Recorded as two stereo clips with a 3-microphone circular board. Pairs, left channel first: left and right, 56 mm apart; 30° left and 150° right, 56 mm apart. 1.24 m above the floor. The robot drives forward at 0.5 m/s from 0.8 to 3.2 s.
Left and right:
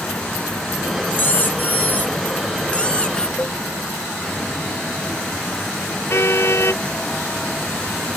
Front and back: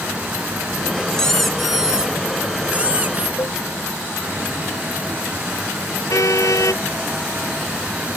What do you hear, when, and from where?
1.1 s a squeak: 95° left; by 3.3 s 160° left
3.4 s a cowbell: 40° left
6.1 s a car horn: 50° left